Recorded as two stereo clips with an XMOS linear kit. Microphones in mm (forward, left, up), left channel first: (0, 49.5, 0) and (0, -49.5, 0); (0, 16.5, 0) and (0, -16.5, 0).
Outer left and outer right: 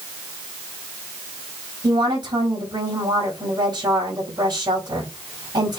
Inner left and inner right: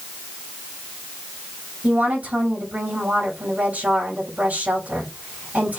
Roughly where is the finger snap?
No finger snap in this recording.